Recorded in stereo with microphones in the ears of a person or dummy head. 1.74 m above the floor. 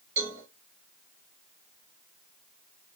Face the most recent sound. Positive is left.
turn(degrees=-65)  # may be behind; listen again after turning